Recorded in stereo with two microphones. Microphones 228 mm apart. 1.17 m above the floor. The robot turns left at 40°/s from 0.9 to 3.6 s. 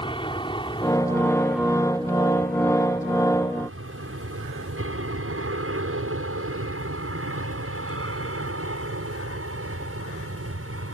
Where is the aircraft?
20° left (ahead or behind); by 10.9 s 75° right (ahead or behind).